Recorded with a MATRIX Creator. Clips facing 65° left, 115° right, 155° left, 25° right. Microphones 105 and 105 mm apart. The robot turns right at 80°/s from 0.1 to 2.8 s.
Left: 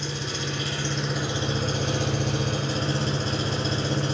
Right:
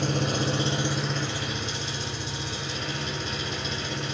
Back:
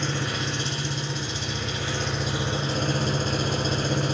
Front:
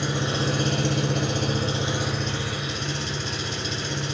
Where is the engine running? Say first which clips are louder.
Right 6 dB, front 3 dB; 100° right, 2 m; by 4.2 s 120° left, 2 m.